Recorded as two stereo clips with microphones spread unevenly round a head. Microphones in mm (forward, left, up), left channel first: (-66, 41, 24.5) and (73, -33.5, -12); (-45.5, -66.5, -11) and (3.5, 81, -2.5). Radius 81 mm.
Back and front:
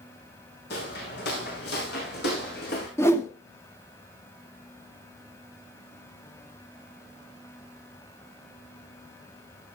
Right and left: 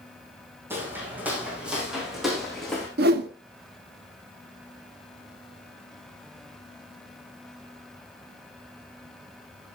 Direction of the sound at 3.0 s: 80° left.